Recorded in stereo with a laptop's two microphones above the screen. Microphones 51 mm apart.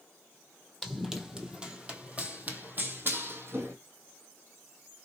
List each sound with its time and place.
0.8 s running footsteps: centre (ahead or behind), 1.5 m; by 3.8 s 50° right (ahead or behind), 1.8 m